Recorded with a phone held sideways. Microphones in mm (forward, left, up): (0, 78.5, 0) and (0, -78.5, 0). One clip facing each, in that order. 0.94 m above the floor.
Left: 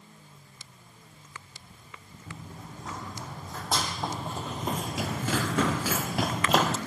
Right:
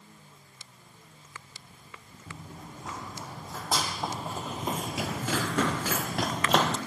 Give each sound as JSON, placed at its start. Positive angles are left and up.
{"t": 2.3, "sound": "running footsteps", "side_deg": -5, "distance_m": 4.0}